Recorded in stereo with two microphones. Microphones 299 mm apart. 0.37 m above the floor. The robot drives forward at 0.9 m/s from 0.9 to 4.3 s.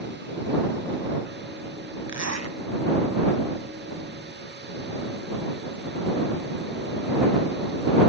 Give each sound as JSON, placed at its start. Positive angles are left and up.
{"t": 2.1, "sound": "a zipper", "side_deg": -65, "distance_m": 1.0}